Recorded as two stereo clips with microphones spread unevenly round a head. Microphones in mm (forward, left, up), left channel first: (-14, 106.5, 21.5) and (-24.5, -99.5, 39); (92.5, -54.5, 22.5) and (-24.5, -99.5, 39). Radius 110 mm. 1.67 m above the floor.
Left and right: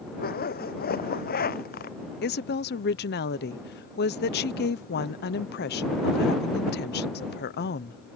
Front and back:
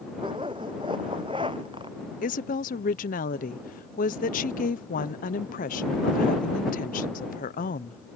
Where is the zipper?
135° left.